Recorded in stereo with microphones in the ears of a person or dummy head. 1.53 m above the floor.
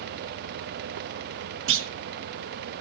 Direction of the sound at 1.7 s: 65° right (ahead or behind).